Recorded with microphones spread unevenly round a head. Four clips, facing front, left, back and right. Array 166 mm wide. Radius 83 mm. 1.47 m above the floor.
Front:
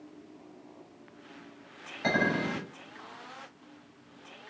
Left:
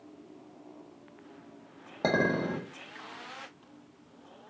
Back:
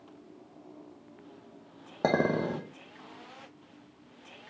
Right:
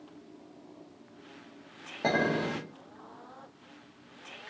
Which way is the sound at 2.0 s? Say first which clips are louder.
Left 1 dB, back 2 dB; 165° left.